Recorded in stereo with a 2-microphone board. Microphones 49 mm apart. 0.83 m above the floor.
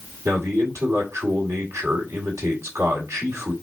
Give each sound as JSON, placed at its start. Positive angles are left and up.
{"t": 0.2, "sound": "a man speaking", "side_deg": -75, "distance_m": 1.9}